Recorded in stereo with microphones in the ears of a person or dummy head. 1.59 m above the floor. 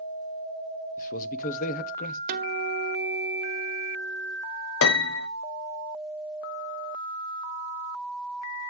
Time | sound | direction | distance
1.0 | a man speaking | 45° left (ahead or behind) | 0.7 m
2.3 | a guitar | 50° right (ahead or behind) | 1.0 m
4.8 | a piano | 70° left (ahead or behind) | 0.8 m